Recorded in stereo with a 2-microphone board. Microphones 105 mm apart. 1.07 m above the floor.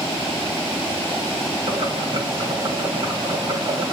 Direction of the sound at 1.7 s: 50° right (ahead or behind).